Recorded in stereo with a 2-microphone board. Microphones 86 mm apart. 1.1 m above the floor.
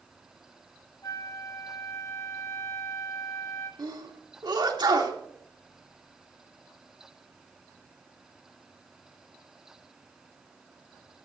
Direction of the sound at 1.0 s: 40° left (ahead or behind).